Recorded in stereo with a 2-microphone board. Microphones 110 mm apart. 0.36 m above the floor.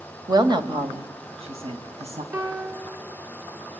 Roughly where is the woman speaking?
Right.